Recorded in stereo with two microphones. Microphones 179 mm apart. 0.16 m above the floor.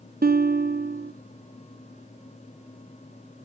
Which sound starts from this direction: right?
A guitar, at 0.2 s.